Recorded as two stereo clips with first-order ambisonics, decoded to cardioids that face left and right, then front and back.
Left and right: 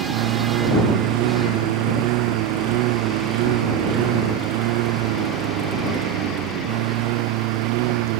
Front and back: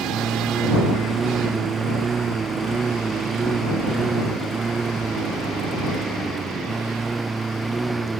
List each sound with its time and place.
0.0 s a lawn mower: 110° right; by 8.2 s 100° right